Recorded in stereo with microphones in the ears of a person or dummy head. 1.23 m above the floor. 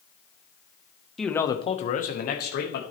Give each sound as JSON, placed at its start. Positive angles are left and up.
{"t": 1.2, "sound": "a man speaking", "side_deg": 0, "distance_m": 0.6}